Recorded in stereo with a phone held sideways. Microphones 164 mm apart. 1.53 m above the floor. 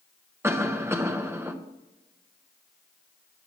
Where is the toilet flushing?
I don't hear a toilet flushing.